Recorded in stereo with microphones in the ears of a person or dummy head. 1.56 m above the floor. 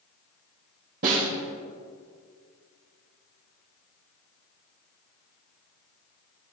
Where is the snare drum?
45° right (ahead or behind), 3 m.